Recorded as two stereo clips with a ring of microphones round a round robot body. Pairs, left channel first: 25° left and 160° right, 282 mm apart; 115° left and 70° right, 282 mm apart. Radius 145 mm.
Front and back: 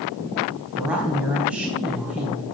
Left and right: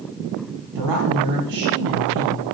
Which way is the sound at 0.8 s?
70° right.